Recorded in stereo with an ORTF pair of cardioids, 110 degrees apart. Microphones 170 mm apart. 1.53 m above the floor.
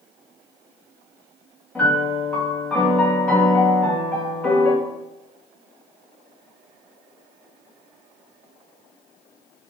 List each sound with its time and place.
1.8 s a piano: 5° left, 2.5 m